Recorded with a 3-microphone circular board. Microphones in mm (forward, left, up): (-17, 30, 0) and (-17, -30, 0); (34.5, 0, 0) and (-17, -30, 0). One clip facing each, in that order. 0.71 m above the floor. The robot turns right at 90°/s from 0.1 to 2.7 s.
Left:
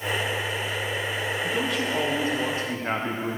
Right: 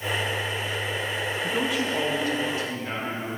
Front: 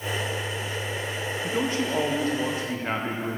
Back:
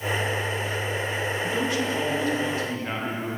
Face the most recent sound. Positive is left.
turn(degrees=85)